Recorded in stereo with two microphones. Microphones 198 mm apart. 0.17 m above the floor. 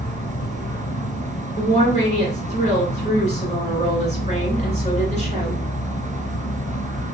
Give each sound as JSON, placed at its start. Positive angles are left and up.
{"t": 0.0, "sound": "an insect", "side_deg": 40, "distance_m": 1.8}
{"t": 1.6, "sound": "a woman speaking", "side_deg": 40, "distance_m": 1.7}